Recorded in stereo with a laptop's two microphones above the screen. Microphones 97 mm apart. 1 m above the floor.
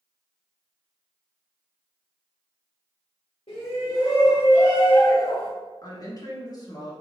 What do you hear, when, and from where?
3.5 s a shout: 65° left (ahead or behind), 1.4 m
5.8 s a woman speaking: 40° left (ahead or behind), 1.4 m